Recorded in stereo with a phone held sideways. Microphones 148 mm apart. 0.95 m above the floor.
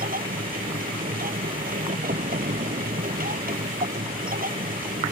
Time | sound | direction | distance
0.0 | a machine running | 75° right (ahead or behind) | ?